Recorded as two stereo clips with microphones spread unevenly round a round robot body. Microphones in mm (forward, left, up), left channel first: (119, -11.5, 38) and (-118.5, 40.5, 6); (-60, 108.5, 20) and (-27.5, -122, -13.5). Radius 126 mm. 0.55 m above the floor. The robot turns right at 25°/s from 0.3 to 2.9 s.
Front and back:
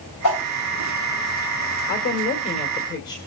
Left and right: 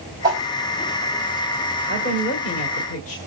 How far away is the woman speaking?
About 2.0 m.